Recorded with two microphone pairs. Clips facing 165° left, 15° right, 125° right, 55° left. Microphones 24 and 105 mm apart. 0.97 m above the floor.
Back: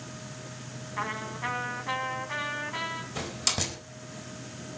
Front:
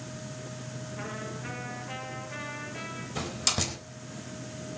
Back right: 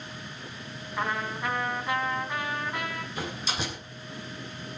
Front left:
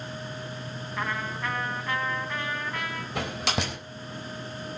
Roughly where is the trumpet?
Behind.